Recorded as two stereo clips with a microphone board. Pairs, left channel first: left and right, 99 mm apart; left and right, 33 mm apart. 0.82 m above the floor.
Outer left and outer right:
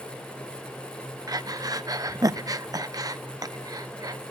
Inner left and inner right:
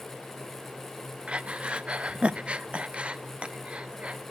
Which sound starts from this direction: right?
Breathing, at 1.3 s.